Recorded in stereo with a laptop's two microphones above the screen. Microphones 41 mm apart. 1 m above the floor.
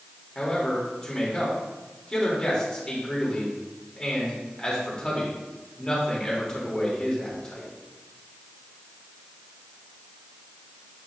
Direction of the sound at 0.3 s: 15° left (ahead or behind).